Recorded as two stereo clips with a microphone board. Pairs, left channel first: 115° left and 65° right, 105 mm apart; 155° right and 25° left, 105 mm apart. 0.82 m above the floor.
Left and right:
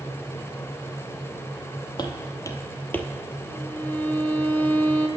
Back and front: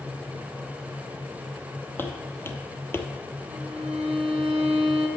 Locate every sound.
2.0 s footsteps: 140° left, 1.2 m; by 3.1 s 175° left, 0.8 m
3.5 s a violin: 40° left, 1.0 m